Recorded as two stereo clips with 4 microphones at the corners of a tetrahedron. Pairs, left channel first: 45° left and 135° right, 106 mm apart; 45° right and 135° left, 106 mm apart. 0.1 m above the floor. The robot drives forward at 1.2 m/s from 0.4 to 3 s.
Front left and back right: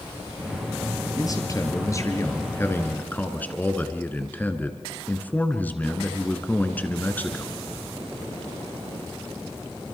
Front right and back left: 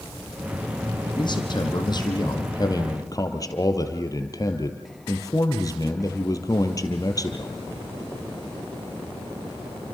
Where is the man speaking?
5° right, 4 m; by 7.6 s 20° right, 2 m.